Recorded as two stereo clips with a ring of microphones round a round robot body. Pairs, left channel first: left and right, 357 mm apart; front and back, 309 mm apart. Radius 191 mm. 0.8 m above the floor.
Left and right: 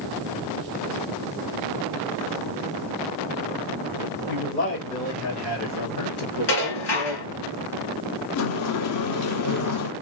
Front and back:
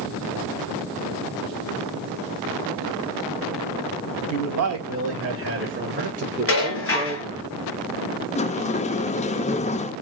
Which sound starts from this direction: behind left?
A man speaking, at 4.3 s.